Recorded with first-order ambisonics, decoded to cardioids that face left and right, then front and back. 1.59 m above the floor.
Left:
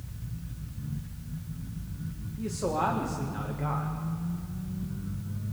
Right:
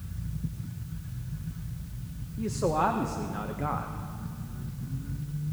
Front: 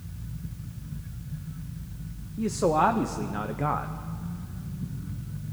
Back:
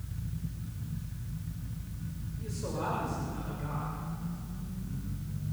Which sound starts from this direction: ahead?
A man speaking, at 2.4 s.